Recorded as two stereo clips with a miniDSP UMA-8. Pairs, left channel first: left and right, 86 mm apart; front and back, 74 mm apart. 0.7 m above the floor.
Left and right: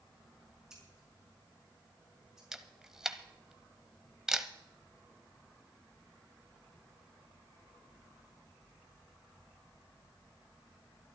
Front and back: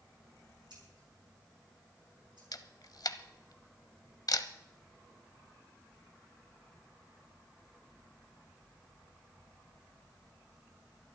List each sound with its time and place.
0.7 s scissors: 175° right, 5.5 m
2.5 s a camera shutter: 10° right, 0.8 m